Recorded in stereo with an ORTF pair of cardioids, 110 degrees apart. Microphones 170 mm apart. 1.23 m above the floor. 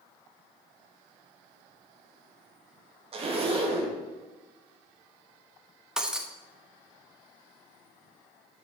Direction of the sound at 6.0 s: 5° right.